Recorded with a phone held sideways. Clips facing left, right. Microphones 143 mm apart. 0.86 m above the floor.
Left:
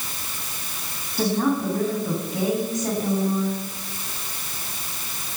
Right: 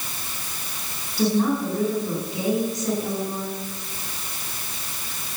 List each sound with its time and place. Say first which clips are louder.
1.2 s a woman speaking: right 1 dB; 50° left (ahead or behind), 8 m